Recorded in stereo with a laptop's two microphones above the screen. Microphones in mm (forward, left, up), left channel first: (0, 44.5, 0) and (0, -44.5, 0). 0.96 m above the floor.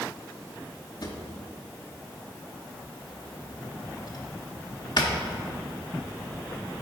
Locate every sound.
1.0 s a drawer: 55° left (ahead or behind), 1.0 m